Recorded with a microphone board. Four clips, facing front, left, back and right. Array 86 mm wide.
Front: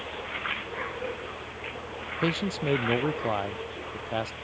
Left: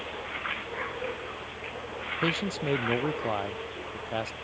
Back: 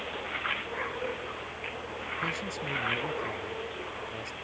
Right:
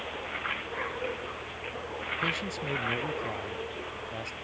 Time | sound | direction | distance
2.2 | a man speaking | 30° left | ?